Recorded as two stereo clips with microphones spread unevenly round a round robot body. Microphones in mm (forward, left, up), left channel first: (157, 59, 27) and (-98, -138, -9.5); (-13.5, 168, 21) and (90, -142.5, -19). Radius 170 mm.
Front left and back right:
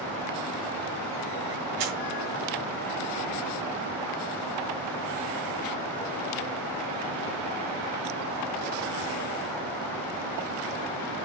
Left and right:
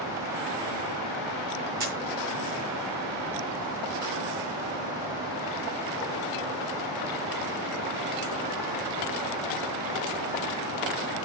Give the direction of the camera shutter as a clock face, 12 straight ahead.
5 o'clock.